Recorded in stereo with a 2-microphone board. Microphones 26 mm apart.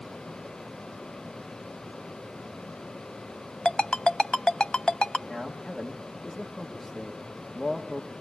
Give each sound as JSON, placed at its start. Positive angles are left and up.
{"t": 3.6, "sound": "a ringtone", "side_deg": 35, "distance_m": 0.5}
{"t": 5.3, "sound": "a man speaking", "side_deg": 0, "distance_m": 1.3}